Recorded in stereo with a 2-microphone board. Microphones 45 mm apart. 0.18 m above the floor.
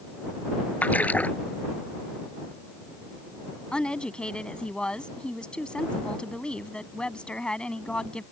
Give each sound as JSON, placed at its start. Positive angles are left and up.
{"t": 0.8, "sound": "a splash", "side_deg": 35}
{"t": 3.7, "sound": "a woman speaking", "side_deg": 25}